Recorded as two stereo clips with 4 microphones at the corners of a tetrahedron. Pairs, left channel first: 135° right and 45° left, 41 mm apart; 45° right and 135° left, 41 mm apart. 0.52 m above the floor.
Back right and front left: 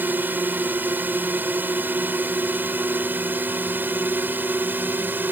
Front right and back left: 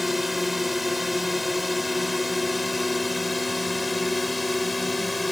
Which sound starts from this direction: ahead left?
A drone, at 0.0 s.